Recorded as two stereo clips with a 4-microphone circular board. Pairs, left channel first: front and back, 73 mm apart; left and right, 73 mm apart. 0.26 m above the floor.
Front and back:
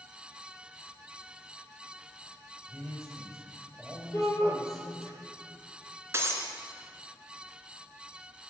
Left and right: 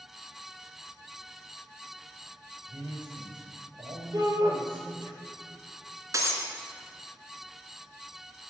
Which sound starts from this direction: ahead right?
A shout, at 4.1 s.